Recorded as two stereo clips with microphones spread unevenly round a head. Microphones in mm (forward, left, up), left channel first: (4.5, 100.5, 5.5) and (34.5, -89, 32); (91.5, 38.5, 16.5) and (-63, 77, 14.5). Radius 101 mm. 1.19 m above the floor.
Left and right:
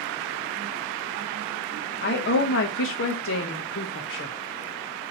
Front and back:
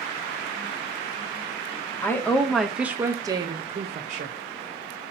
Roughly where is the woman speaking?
Ahead left.